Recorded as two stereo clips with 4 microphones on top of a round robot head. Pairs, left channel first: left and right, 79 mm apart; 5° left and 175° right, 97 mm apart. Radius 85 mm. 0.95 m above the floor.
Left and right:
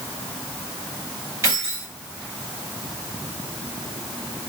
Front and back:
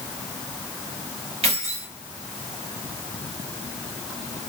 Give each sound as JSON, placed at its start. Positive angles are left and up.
{"t": 1.4, "sound": "keys jangling", "azimuth_deg": -150, "distance_m": 4.5}